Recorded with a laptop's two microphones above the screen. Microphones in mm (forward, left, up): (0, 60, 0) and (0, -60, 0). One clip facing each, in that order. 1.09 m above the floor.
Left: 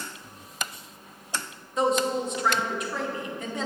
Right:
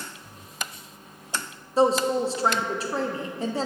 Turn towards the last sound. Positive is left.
turn(degrees=-35)  # may be behind; listen again after turning